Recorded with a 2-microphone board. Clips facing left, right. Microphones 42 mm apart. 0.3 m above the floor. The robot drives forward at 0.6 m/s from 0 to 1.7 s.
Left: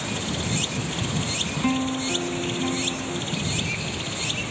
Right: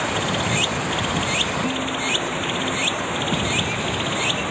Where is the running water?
40° right (ahead or behind).